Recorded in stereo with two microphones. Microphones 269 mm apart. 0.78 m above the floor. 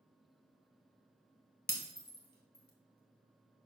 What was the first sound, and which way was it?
Breaking glass, 35° left (ahead or behind).